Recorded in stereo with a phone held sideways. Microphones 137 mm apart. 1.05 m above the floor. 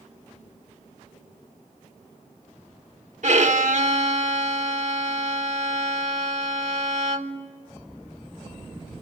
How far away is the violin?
About 1.4 m.